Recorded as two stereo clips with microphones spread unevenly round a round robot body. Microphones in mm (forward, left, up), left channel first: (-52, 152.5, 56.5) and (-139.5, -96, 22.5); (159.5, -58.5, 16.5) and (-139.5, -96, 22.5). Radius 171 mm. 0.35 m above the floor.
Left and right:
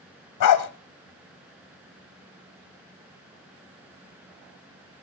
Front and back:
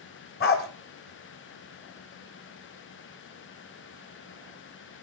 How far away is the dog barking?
About 1.1 m.